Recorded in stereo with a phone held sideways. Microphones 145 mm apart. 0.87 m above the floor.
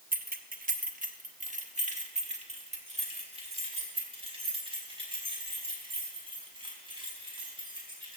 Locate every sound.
0.1 s keys jangling: 75° right (ahead or behind), 0.8 m; by 8.2 s 35° right (ahead or behind), 5.5 m